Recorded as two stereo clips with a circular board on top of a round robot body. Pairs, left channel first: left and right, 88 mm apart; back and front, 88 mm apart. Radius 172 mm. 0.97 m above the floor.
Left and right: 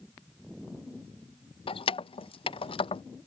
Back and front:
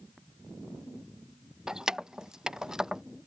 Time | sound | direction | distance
1.7 | keys jangling | 85° left | ?